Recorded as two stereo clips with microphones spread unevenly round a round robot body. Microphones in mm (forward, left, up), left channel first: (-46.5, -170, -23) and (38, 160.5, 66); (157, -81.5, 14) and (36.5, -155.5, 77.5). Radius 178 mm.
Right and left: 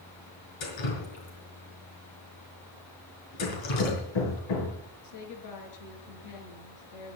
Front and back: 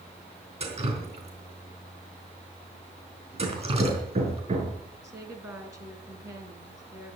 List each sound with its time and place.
0.6 s dripping: 95° right, 4.5 m
3.4 s hammering: 110° right, 4.5 m
5.0 s a woman speaking: 75° right, 4.5 m